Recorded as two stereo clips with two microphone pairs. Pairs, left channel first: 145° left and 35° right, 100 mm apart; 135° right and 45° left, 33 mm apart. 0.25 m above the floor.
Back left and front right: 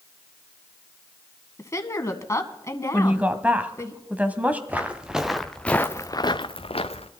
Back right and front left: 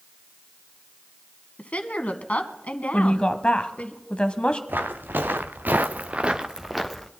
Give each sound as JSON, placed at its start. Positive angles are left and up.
{"t": 1.6, "sound": "a woman speaking", "azimuth_deg": -165, "distance_m": 1.7}
{"t": 2.9, "sound": "a woman speaking", "azimuth_deg": -105, "distance_m": 1.4}
{"t": 4.7, "sound": "footsteps", "azimuth_deg": 40, "distance_m": 2.0}